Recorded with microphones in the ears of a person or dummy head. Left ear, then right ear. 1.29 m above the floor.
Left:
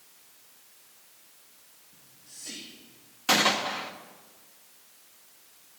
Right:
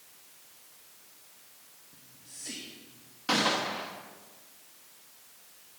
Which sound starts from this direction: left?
A gunshot, at 3.3 s.